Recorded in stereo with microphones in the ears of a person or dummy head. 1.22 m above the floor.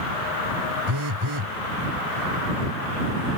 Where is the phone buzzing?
80° right.